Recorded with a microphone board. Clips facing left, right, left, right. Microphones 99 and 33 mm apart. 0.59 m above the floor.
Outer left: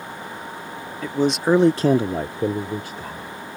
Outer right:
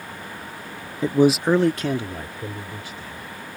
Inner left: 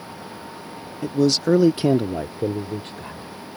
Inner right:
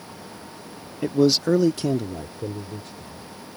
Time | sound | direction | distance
1.0 | a man speaking | 25° right (ahead or behind) | ?